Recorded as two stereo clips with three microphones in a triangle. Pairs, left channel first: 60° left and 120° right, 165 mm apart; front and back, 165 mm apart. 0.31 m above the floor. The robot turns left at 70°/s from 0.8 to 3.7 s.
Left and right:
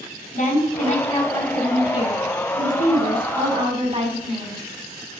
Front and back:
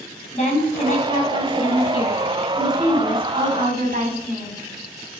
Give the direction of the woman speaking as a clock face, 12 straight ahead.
11 o'clock.